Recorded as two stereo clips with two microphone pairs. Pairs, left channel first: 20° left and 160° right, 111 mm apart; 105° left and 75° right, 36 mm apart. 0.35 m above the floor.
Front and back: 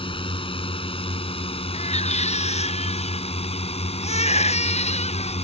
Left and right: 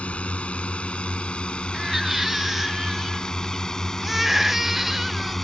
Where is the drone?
55° left; by 5.5 s 20° left.